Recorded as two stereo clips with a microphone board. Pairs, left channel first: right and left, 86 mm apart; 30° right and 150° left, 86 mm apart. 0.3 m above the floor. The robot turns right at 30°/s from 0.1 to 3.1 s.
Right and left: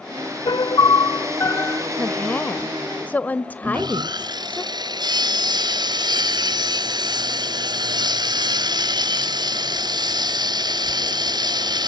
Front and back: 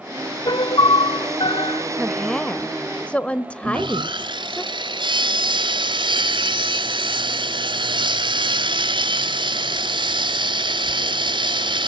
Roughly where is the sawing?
Behind left.